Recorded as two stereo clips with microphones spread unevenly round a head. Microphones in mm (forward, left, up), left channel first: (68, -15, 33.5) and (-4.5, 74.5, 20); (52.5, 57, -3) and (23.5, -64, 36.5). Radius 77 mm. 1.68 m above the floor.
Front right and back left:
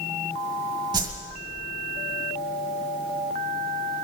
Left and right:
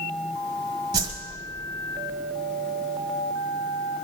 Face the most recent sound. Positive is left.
turn(degrees=-165)